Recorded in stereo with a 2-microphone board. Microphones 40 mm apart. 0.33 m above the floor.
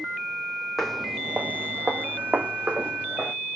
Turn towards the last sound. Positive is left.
turn(degrees=-45)  # may be behind; listen again after turning